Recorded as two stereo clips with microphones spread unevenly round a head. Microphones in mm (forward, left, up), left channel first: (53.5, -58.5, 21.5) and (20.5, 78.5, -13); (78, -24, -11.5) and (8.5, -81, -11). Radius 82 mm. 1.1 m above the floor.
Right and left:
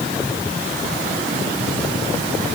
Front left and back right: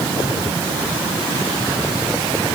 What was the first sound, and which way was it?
Only background noise.